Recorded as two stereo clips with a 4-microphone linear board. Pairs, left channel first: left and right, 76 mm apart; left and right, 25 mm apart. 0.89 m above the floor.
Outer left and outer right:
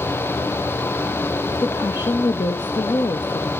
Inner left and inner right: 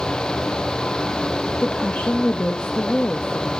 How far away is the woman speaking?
About 0.7 m.